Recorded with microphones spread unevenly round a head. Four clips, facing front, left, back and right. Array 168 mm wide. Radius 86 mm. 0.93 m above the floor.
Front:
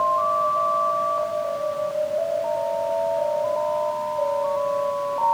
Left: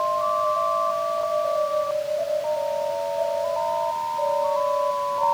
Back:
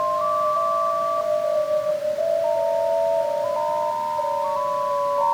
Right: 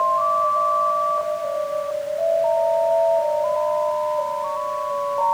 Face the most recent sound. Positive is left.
No sound to turn to.